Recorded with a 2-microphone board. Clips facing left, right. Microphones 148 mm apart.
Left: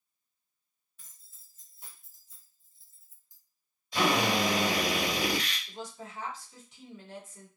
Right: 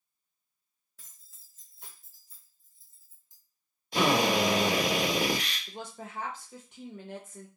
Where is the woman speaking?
55° right (ahead or behind), 0.8 m.